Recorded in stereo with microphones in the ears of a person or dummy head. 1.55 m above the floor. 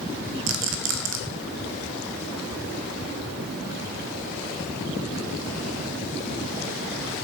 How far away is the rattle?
About 0.7 m.